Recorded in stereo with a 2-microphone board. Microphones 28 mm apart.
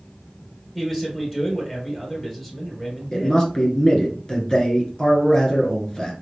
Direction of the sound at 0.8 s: 20° left (ahead or behind).